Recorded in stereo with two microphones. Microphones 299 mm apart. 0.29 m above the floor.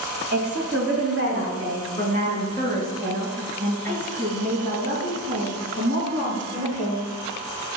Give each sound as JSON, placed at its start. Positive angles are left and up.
{"t": 0.3, "sound": "a woman speaking", "side_deg": -45, "distance_m": 1.5}